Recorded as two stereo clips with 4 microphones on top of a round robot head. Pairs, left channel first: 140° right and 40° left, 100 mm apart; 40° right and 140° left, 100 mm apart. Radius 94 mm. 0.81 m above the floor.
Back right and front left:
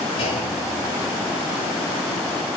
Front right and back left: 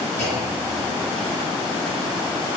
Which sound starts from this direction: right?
A clunk, at 0.2 s.